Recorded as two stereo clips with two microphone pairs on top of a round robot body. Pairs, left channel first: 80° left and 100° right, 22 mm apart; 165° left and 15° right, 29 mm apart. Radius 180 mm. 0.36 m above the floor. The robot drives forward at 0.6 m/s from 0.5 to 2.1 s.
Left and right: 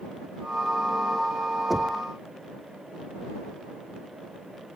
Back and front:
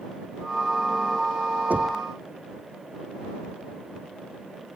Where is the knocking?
10° right.